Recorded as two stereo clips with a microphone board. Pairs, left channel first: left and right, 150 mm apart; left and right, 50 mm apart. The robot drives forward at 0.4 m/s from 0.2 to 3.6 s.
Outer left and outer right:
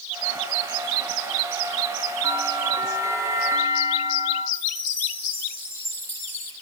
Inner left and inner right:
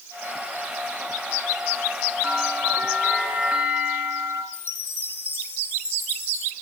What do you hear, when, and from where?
2.2 s a bell: 20° right (ahead or behind), 3.5 m
4.5 s a chime: 45° left (ahead or behind), 3 m